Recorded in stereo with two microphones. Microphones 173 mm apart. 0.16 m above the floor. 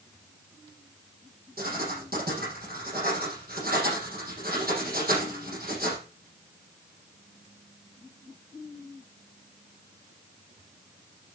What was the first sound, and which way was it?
Writing, 60° right (ahead or behind).